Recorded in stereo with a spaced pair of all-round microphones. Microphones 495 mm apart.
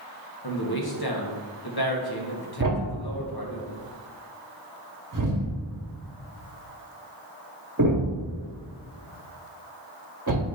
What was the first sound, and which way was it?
A man speaking, 50° left (ahead or behind).